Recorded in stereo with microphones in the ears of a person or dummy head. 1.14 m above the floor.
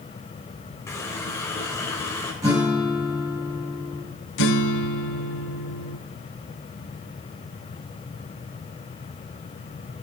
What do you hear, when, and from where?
0.9 s a running tap: 15° left (ahead or behind), 3 m
2.4 s a guitar: 20° right (ahead or behind), 7.5 m
4.4 s a guitar: 65° left (ahead or behind), 1.0 m